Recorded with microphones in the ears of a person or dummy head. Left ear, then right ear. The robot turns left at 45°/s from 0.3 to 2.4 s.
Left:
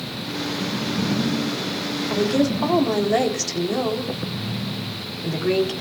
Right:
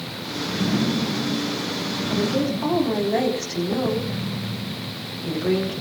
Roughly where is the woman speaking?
Left.